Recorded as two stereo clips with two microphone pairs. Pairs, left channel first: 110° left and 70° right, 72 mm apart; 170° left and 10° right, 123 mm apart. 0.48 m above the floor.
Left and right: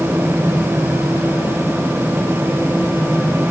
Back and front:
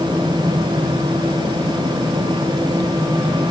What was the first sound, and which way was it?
Only background noise.